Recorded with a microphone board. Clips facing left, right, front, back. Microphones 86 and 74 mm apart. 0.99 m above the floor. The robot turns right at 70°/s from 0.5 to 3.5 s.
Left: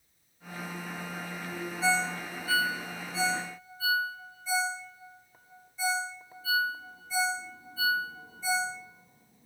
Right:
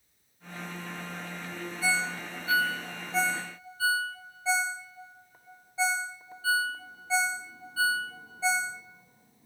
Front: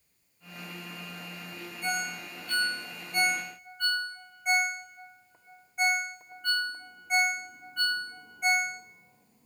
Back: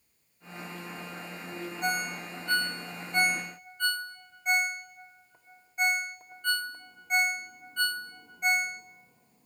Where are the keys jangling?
No keys jangling in this recording.